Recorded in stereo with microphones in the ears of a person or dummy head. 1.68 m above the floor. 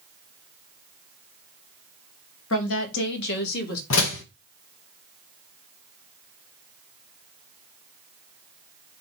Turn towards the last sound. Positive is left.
turn(degrees=70)  # may be behind; listen again after turning